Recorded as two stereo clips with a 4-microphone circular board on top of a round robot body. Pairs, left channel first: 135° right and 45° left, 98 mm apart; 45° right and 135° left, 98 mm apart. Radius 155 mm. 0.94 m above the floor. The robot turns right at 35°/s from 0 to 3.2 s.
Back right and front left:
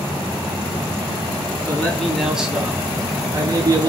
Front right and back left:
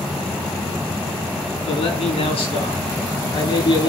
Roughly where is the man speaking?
Ahead right.